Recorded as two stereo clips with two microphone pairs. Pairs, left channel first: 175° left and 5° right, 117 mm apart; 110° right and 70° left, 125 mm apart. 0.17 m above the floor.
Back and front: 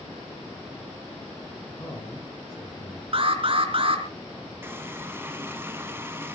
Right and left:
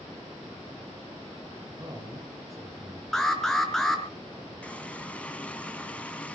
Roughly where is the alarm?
Ahead right.